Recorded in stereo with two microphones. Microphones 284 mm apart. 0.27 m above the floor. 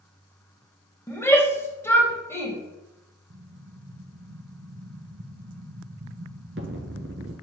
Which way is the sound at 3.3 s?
50° right (ahead or behind).